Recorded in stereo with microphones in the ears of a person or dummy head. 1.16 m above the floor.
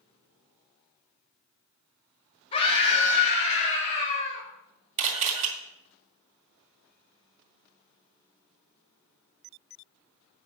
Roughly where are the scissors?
I don't hear scissors.